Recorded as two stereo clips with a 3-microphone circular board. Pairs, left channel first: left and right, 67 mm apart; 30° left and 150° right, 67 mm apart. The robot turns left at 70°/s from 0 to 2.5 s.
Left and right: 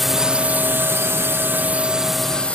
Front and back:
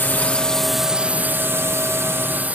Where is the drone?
Straight ahead; by 2.5 s 155° left.